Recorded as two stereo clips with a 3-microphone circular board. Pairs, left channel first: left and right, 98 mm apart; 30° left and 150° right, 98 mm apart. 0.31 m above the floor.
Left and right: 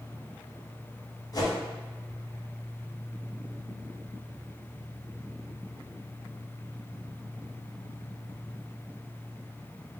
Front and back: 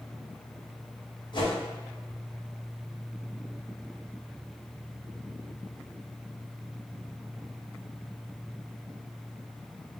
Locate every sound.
1.3 s a whoosh: 50° left, 1.4 m